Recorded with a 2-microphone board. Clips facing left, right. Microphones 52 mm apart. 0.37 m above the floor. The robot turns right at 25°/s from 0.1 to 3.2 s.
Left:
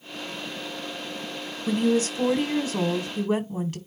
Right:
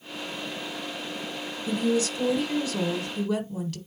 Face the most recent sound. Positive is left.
turn(degrees=130)